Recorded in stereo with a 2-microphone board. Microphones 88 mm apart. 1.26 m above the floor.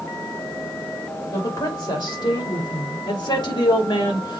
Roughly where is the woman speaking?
Left.